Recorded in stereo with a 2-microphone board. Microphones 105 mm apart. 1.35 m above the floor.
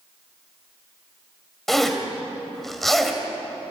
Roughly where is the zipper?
Centre.